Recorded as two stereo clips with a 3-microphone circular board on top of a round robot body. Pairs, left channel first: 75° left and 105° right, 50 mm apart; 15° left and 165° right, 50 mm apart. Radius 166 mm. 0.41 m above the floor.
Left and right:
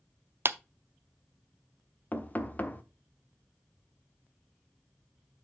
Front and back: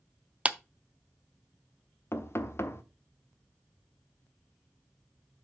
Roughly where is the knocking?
Ahead left.